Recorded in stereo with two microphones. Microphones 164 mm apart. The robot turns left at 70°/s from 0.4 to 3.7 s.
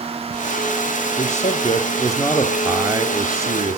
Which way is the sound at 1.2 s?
95° left.